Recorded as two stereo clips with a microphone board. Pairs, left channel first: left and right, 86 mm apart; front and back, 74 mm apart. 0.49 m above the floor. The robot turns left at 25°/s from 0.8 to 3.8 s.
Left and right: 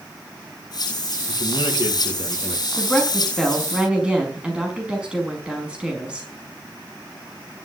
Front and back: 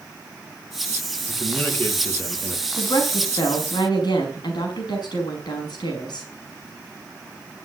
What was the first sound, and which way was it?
A man speaking, 80° left.